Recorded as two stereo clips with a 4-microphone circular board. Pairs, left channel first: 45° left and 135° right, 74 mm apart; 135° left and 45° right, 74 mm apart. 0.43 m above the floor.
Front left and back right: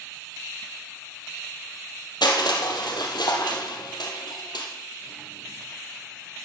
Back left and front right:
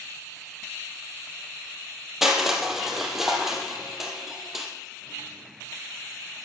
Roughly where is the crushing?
Ahead left.